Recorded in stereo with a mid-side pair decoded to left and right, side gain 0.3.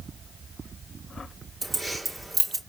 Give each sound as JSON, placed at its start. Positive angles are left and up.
{"t": 1.6, "sound": "keys jangling", "azimuth_deg": -25, "distance_m": 2.0}